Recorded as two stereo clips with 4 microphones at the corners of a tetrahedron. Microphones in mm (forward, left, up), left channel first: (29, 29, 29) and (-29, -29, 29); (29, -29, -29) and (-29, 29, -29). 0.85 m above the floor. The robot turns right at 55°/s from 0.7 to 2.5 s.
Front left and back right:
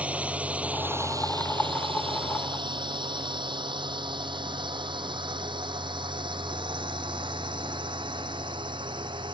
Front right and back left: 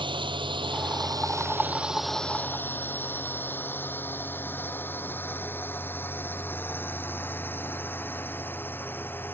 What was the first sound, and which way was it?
A drone, 150° left.